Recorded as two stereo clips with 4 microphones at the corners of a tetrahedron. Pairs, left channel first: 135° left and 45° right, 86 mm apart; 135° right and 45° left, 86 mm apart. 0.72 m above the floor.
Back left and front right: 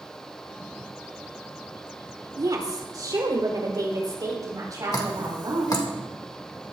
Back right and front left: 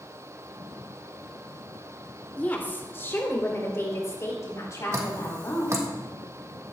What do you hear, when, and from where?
2.4 s a woman speaking: 70° right, 2 m; by 5.8 s 85° right, 5.5 m
4.9 s dripping: 95° left, 1.7 m